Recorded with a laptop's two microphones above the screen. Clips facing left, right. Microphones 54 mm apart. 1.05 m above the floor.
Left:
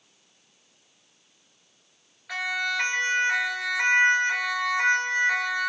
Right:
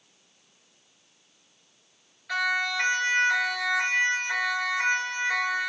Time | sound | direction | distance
2.3 | a siren | 5° left (ahead or behind) | 2 m